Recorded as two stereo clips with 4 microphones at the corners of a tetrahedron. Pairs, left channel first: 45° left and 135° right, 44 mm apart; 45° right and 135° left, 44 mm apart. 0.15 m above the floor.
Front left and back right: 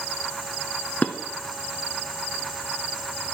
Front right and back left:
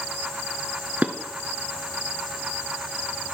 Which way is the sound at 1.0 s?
85° left.